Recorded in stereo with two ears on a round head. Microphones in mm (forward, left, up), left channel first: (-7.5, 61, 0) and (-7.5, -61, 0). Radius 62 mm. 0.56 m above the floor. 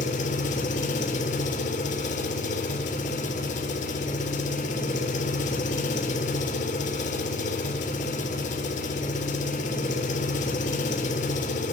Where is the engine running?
55° left (ahead or behind), 1.6 m.